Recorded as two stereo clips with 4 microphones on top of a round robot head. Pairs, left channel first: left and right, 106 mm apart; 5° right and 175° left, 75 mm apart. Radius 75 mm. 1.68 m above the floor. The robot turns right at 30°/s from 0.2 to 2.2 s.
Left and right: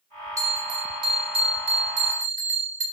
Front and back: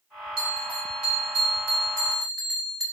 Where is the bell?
150° right, 2 m; by 2.8 s 95° right, 2 m.